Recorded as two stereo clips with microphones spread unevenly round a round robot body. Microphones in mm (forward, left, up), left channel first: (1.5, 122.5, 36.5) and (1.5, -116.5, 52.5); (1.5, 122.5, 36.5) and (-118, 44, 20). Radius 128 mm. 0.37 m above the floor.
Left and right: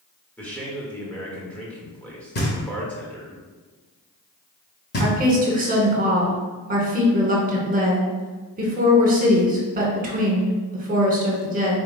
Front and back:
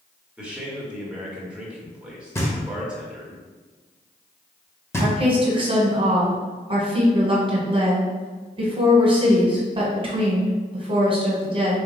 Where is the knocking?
105° left, 1.4 m.